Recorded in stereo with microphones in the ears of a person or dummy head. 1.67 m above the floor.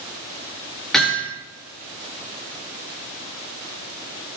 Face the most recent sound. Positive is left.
turn(degrees=0)  # may be behind; listen again after turning